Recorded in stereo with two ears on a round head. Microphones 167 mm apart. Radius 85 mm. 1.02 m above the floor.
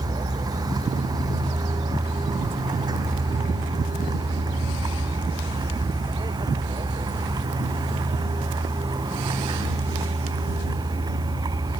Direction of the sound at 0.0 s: 20° right (ahead or behind).